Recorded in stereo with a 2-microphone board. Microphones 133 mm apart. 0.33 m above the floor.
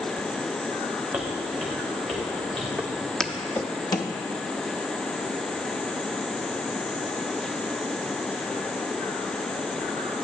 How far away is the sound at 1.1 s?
About 1.9 m.